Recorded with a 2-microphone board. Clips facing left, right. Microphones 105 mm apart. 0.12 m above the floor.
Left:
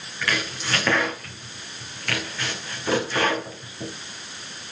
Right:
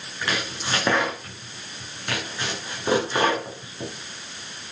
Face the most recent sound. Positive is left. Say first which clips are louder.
# left 1 dB
turn(degrees=-25)  # may be behind; listen again after turning